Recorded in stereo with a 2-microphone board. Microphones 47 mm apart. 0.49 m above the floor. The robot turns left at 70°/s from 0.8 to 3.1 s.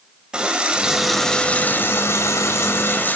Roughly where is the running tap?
Behind.